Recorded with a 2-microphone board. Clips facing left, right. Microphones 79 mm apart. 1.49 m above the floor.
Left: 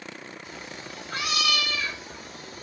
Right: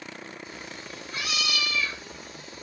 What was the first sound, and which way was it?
A cat meowing, 80° left.